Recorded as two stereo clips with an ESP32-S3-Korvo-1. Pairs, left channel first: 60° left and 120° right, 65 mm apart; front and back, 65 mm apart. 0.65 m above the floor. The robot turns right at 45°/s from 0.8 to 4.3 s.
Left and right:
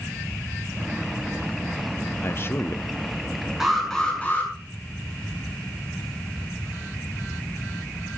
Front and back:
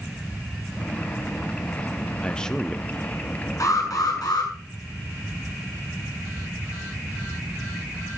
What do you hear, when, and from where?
2.2 s a man speaking: 60° left, 0.6 m; by 2.9 s 90° left, 0.6 m
3.6 s an alarm: 35° right, 6.5 m; by 4.5 s 5° right, 6.5 m